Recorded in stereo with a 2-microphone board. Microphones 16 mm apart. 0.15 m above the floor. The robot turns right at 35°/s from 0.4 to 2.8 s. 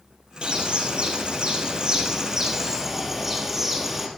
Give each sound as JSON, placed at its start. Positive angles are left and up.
{"t": 0.4, "sound": "a bird", "azimuth_deg": -100, "distance_m": 1.8}